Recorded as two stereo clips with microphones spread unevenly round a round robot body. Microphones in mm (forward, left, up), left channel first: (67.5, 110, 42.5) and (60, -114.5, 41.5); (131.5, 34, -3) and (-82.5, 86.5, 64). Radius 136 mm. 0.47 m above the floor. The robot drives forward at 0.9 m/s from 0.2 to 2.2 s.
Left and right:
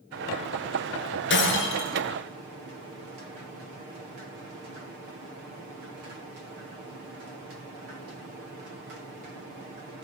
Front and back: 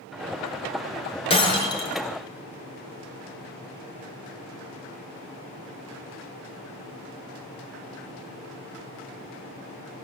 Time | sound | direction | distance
1.3 | breaking glass | 50° left | 4 m